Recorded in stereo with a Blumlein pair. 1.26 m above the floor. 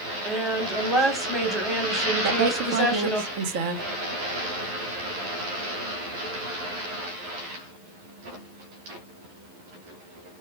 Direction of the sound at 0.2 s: Straight ahead.